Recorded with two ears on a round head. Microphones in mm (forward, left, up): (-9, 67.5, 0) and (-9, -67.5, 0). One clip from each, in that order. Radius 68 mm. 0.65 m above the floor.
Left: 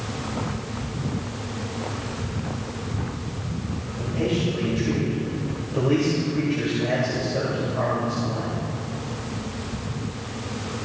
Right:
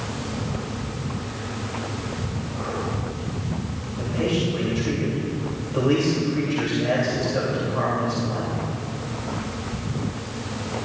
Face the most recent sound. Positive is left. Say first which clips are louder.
# right 1 dB
turn(degrees=-30)  # may be behind; listen again after turning